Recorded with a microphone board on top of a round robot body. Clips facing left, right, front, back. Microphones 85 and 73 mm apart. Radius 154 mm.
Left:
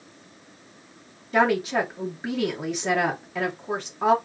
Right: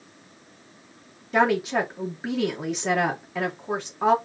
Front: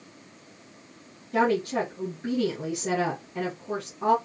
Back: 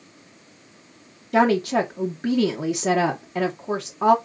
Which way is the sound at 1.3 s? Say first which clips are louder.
Even, back 5 dB; 170° right.